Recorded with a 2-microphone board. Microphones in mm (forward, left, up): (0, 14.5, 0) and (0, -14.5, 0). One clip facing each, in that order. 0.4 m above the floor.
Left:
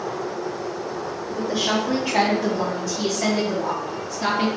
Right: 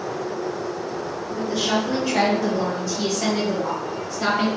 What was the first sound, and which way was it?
A woman speaking, 30° left (ahead or behind).